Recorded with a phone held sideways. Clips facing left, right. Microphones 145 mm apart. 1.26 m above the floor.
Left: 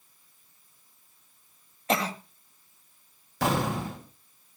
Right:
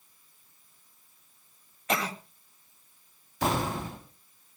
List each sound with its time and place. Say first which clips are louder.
1.9 s a cough: left 3 dB; 30° left (ahead or behind), 2.5 m
3.4 s an explosion: left 2 dB; 90° left, 6 m